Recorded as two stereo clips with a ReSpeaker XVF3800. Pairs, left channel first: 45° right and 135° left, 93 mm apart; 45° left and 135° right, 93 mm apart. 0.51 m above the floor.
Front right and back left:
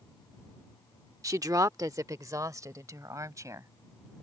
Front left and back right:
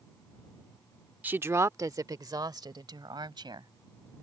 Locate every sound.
1.2 s a woman speaking: 165° left; by 3.7 s 170° right